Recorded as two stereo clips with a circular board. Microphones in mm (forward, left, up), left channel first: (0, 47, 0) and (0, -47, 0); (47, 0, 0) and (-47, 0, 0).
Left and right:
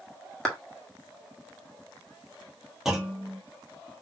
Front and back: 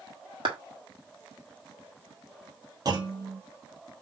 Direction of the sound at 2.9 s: 175° right.